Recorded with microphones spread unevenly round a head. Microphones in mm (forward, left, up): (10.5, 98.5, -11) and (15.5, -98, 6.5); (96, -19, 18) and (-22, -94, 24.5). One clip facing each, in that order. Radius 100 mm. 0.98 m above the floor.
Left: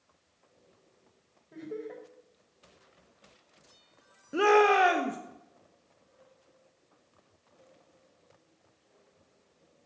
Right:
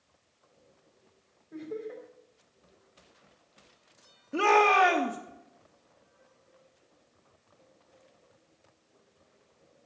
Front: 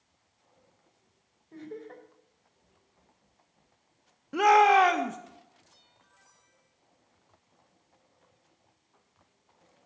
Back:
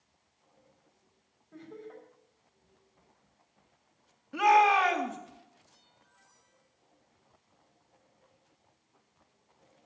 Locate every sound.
1.5 s laughter: 10° left, 3.5 m
4.3 s a shout: 15° left, 1.1 m